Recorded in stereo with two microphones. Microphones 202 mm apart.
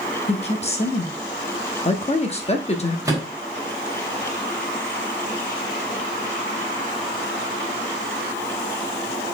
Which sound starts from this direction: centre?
A microwave, at 3.0 s.